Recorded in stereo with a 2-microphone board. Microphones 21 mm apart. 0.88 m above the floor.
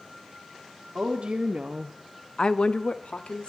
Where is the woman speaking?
65° right (ahead or behind), 1.7 m; by 3.5 s 65° left (ahead or behind), 2 m.